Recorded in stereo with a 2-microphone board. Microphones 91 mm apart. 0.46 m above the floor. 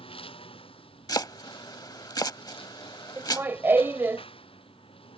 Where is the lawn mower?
85° left.